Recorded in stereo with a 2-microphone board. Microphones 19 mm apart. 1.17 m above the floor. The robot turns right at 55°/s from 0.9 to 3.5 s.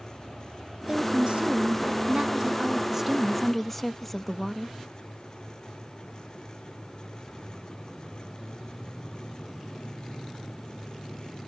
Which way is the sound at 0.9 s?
130° right.